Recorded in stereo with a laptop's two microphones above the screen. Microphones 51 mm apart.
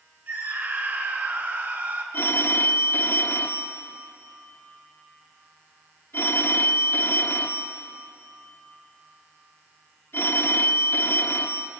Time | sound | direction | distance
0.3 | a scream | 45° right (ahead or behind) | 3.5 m
2.1 | a phone ringing | 50° left (ahead or behind) | 1.9 m